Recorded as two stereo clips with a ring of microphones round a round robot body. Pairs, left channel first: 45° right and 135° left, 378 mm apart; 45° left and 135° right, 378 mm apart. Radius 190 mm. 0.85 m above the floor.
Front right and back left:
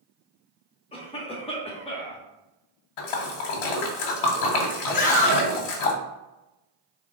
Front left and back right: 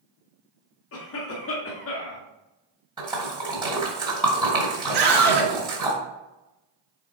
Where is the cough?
20° left, 0.8 m.